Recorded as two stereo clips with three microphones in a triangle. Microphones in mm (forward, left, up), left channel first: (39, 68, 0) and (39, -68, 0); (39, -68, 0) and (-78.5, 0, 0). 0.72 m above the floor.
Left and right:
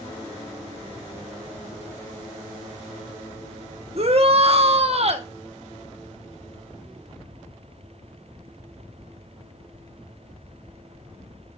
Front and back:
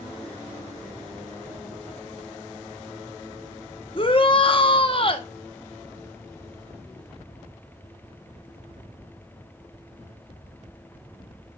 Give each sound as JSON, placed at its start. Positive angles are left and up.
{"t": 4.0, "sound": "a shout", "azimuth_deg": -65, "distance_m": 1.0}